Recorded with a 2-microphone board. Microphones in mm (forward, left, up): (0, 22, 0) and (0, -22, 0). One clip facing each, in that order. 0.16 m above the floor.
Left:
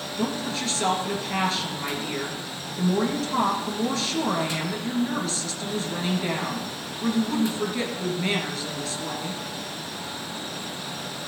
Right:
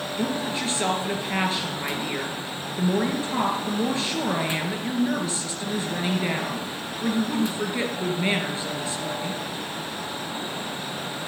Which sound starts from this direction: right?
A woman speaking, at 0.2 s.